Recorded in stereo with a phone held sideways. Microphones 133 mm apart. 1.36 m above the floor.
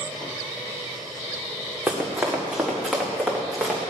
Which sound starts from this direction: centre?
Running footsteps, at 1.9 s.